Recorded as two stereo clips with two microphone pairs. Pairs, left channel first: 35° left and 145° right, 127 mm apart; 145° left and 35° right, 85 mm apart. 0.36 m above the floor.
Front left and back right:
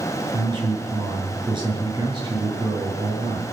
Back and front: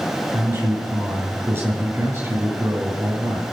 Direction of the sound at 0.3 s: 95° right.